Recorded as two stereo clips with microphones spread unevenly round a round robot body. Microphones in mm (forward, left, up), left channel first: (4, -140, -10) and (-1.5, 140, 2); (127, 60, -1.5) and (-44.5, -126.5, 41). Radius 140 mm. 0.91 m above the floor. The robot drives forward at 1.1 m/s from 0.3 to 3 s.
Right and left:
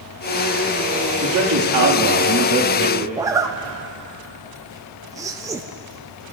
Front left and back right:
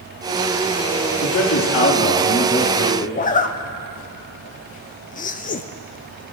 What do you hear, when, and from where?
1.2 s a man speaking: 60° left, 1.9 m; by 3.0 s 125° left, 2 m
3.1 s a zipper: 15° left, 0.6 m